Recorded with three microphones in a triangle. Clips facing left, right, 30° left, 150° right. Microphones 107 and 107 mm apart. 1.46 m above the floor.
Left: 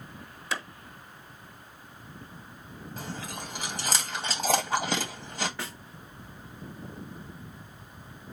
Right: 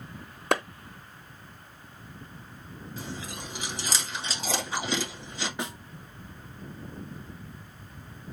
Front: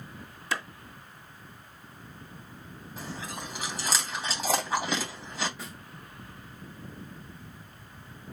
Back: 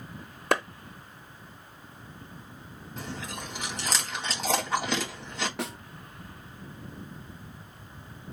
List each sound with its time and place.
0.5 s a clap: 120° right, 0.9 m
3.0 s chewing: 115° left, 2.5 m
5.6 s a snare drum: 160° right, 0.6 m